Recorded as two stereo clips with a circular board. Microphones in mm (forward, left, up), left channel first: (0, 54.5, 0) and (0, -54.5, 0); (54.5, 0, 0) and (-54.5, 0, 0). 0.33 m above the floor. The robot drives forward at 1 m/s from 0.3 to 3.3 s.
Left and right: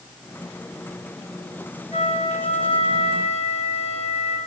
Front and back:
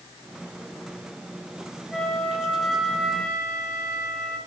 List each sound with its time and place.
1.9 s a flute: 90° left, 10 m; by 4.4 s 95° left, 10 m